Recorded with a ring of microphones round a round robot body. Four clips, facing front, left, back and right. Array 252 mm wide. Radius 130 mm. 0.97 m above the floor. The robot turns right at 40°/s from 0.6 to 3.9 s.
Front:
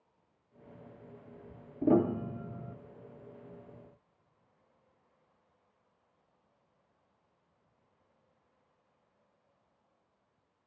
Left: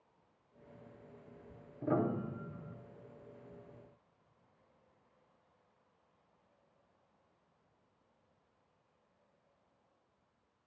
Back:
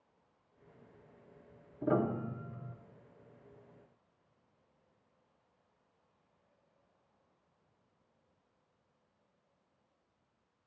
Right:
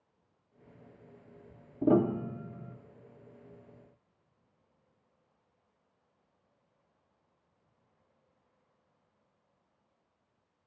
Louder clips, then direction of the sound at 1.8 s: Right 8 dB, front 5 dB; 60° right.